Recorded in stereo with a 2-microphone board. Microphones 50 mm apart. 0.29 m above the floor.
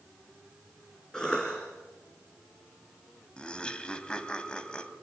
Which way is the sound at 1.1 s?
15° left (ahead or behind).